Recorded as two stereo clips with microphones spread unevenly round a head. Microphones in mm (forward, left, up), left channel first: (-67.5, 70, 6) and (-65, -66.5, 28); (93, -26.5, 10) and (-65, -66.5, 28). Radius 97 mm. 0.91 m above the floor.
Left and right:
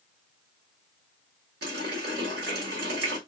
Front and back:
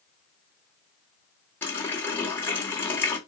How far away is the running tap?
About 1.5 m.